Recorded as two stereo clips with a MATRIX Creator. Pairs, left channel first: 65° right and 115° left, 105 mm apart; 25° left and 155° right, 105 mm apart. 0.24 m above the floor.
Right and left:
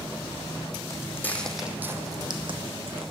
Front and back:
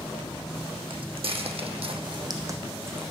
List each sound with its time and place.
0.9 s footsteps: 125° right, 0.8 m; by 3.1 s 130° left, 1.0 m